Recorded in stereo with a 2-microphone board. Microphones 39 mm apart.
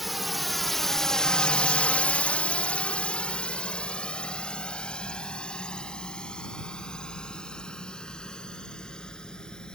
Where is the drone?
Centre (ahead or behind); by 9.8 s 20° left (ahead or behind).